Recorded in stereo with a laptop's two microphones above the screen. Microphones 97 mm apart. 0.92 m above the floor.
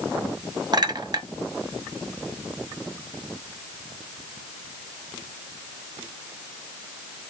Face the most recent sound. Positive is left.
turn(degrees=-45)  # may be behind; listen again after turning